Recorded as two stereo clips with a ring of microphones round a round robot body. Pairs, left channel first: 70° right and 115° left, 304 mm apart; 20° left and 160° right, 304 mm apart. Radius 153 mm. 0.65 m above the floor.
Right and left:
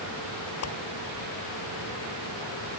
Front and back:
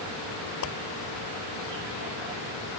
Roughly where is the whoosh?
Ahead right.